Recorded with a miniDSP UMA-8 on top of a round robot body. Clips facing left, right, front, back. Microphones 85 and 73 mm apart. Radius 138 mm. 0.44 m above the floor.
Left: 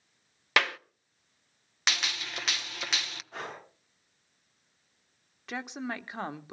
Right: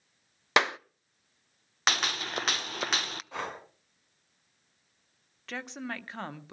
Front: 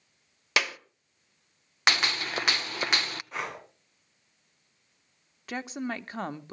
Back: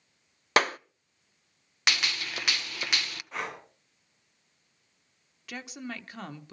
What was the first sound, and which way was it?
A clap, 150° right.